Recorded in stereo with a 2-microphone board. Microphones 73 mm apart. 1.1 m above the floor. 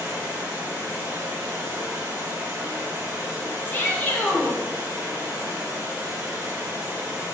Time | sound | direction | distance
0.0 | running water | 35° right (ahead or behind) | 0.8 m
3.7 | a shout | 30° left (ahead or behind) | 0.7 m